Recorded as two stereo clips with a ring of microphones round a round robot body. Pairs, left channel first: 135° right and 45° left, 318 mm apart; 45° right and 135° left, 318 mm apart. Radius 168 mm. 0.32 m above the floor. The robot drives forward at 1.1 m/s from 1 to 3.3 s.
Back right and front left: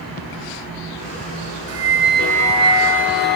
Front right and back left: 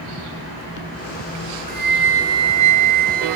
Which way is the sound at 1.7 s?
75° left.